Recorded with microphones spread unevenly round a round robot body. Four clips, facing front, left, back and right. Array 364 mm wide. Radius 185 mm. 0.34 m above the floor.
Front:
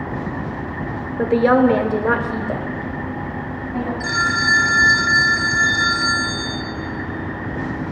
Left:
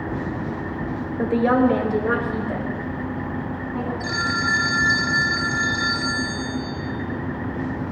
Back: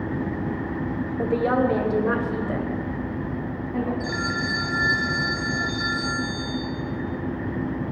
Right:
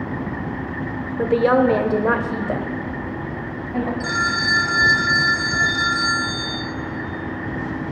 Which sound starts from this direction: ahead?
A phone ringing, at 4.0 s.